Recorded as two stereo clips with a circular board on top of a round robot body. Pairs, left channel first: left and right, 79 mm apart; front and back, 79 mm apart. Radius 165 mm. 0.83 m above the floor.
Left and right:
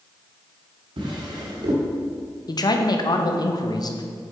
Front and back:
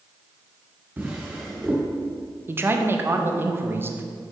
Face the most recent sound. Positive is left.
turn(degrees=120)